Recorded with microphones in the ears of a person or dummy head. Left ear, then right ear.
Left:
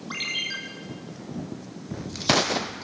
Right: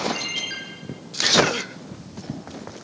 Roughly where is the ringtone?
Left.